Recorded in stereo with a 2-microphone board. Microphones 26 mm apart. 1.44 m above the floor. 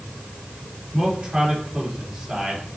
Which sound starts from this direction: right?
A man speaking, at 0.9 s.